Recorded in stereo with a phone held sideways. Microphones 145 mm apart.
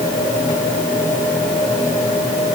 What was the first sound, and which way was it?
Only background noise.